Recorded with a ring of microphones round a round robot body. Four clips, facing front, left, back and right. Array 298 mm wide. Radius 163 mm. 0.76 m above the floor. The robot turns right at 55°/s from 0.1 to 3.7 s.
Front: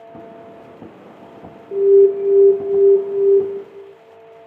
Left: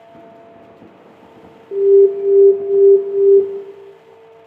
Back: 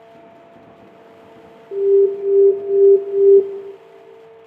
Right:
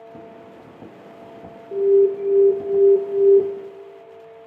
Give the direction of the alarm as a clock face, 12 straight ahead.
9 o'clock.